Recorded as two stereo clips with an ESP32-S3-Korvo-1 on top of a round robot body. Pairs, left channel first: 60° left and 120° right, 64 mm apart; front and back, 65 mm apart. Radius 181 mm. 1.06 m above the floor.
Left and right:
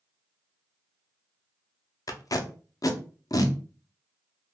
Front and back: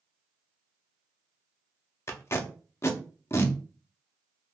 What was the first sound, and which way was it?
Tape being pulled, 45° left.